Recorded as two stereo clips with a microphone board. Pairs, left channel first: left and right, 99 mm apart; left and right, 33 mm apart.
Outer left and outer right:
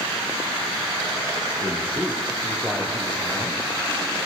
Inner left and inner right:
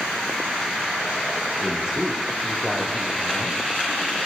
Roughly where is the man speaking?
Centre.